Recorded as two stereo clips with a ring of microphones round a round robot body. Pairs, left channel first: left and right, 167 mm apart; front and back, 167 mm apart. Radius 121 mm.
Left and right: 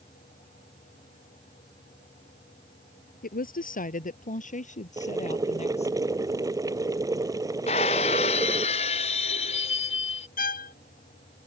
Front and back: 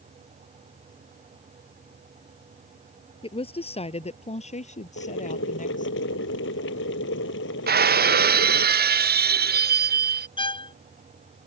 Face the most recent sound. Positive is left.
turn(degrees=60)